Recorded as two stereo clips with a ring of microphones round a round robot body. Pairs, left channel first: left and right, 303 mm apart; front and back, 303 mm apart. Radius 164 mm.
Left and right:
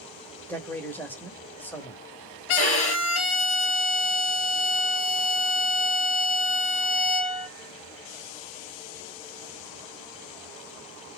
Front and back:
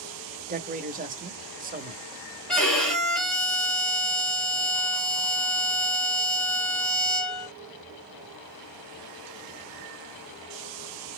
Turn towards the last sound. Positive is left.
turn(degrees=90)